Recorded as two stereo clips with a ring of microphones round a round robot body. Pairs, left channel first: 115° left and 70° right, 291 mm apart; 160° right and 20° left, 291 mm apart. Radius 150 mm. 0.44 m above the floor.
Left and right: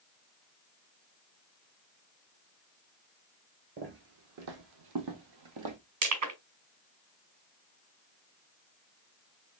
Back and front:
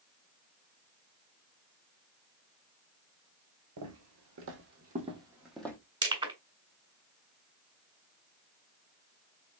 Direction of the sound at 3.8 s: 10° right.